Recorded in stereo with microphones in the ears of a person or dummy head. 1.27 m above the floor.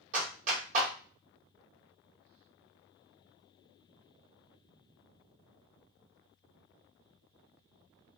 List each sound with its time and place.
0.1 s a clap: 45° right (ahead or behind), 1.2 m